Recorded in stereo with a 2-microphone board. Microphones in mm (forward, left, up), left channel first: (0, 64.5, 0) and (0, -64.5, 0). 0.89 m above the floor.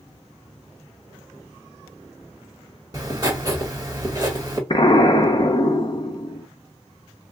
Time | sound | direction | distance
2.9 | writing | 30° right (ahead or behind) | 1.4 m
4.7 | an explosion | 40° left (ahead or behind) | 0.6 m